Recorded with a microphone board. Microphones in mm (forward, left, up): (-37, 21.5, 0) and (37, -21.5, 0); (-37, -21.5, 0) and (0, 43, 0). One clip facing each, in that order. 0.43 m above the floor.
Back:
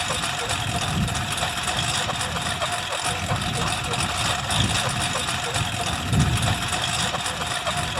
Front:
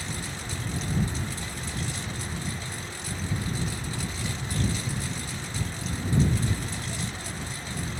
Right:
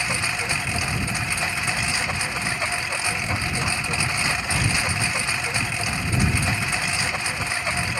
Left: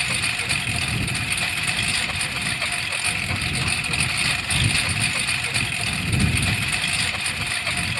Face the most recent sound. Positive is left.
turn(degrees=170)